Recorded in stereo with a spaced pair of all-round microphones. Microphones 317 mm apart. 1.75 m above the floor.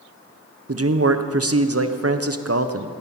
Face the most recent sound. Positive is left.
turn(degrees=-50)  # may be behind; listen again after turning